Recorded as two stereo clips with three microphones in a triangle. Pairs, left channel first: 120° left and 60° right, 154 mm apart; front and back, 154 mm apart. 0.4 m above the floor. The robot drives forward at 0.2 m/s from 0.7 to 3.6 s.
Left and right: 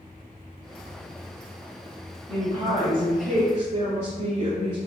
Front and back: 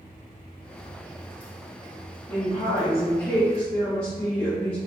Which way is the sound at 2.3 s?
60° right.